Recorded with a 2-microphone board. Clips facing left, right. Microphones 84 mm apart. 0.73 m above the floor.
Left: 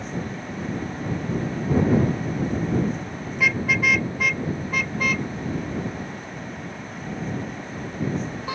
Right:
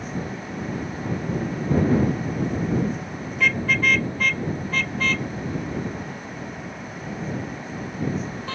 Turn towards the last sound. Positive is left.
turn(degrees=15)  # may be behind; listen again after turning